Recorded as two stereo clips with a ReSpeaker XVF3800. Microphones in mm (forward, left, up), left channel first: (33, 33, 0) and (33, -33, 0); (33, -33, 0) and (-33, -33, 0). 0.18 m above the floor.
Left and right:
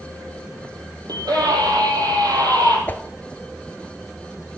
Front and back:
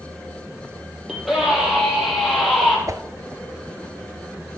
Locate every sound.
1.1 s a scream: 95° right, 6 m; by 2.8 s 90° right, 5.5 m
2.9 s a whoosh: 150° left, 0.6 m